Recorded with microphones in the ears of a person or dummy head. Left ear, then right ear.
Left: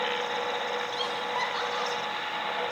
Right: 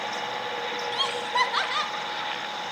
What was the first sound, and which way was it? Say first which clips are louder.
Laughter: right 5 dB; 30° right (ahead or behind).